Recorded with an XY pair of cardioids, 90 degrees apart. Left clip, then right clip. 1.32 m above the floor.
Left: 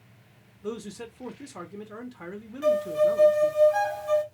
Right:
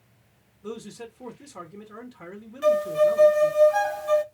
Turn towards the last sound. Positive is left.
turn(degrees=-25)